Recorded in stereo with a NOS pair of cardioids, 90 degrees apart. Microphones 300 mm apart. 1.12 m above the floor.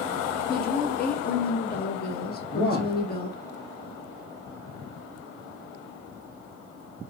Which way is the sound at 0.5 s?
35° left.